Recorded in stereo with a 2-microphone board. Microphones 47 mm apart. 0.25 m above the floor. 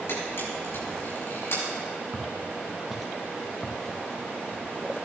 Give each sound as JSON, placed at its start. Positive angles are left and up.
{"t": 0.1, "sound": "a camera shutter", "side_deg": 60, "distance_m": 5.5}
{"t": 2.1, "sound": "footsteps", "side_deg": -25, "distance_m": 1.6}